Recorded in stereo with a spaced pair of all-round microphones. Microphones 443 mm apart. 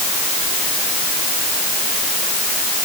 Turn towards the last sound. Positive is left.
No sound to turn to.